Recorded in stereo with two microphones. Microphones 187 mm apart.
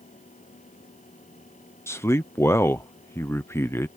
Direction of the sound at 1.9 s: 15° left (ahead or behind).